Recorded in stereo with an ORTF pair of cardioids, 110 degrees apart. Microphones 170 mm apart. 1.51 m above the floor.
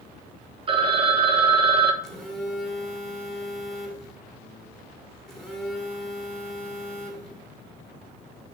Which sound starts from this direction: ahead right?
A phone ringing, at 0.7 s.